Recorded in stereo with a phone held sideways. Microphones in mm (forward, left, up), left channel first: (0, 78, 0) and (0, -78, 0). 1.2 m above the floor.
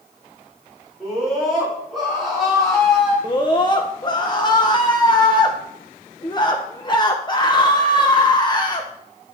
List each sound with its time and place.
1.0 s a scream: 5° right (ahead or behind), 4 m
3.2 s a scream: 30° left (ahead or behind), 0.7 m